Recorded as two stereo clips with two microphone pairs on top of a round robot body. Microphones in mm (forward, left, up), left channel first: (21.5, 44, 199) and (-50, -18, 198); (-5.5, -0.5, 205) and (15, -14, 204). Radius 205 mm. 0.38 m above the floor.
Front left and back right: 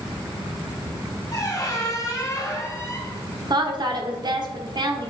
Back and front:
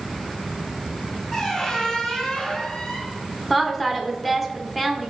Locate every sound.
1.3 s a squeak: 85° left, 1.3 m
3.5 s a woman speaking: 120° right, 1.1 m